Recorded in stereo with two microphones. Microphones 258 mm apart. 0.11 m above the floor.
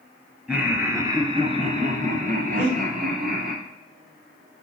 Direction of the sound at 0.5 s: 5° right (ahead or behind).